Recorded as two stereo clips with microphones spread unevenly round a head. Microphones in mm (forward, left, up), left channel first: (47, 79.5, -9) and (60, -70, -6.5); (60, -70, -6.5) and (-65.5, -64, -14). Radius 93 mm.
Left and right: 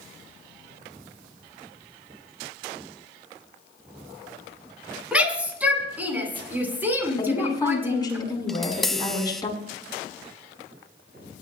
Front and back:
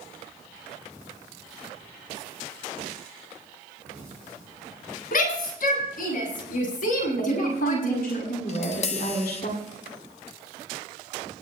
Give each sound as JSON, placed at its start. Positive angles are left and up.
{"t": 5.1, "sound": "a shout", "azimuth_deg": -5, "distance_m": 9.0}
{"t": 7.2, "sound": "a woman speaking", "azimuth_deg": 30, "distance_m": 9.0}
{"t": 8.5, "sound": "tapping", "azimuth_deg": 10, "distance_m": 0.9}